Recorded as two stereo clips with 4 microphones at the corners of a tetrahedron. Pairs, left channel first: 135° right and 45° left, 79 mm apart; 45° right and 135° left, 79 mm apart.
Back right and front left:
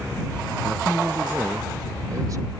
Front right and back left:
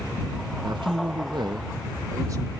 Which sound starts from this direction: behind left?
A man speaking, at 0.6 s.